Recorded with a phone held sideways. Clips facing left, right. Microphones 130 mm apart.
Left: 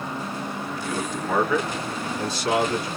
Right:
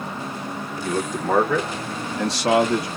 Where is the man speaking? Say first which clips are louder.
Right 6 dB; 40° right (ahead or behind), 1.5 m; by 2.9 s 85° right, 1.3 m.